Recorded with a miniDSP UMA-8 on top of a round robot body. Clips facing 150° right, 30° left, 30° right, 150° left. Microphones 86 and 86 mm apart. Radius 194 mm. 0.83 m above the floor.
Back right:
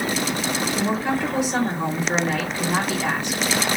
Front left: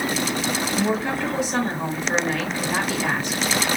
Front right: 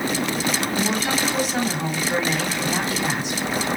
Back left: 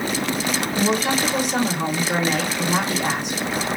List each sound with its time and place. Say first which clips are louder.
0.8 s a woman speaking: even, back left 2 dB; 135° left, 2 m